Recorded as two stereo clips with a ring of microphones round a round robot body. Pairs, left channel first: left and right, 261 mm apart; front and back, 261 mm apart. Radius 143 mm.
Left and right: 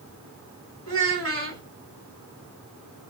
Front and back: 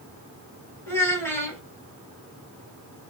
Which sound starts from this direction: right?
A child speaking, at 0.9 s.